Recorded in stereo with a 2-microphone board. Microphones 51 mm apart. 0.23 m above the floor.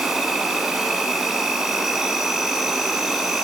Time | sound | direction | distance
0.0 | an insect | 10° right (ahead or behind) | 0.8 m